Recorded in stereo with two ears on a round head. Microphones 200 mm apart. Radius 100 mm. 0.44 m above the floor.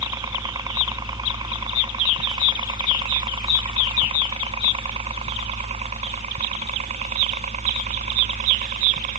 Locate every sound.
0.0 s a helicopter: 15° right (ahead or behind); by 9.2 s 35° right (ahead or behind)